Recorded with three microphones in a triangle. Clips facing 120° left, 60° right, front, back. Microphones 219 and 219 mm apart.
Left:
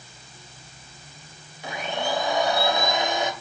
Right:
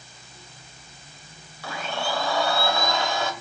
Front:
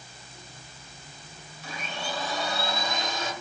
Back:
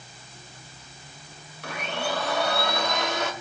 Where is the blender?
170° right, 2 m.